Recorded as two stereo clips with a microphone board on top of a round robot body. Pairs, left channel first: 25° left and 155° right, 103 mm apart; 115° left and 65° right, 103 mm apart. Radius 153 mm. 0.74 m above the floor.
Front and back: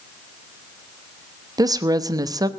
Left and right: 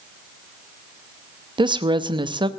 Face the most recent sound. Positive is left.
turn(degrees=-105)